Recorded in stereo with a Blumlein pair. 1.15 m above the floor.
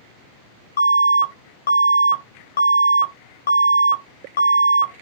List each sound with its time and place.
0.8 s an alarm: 70° left, 0.6 m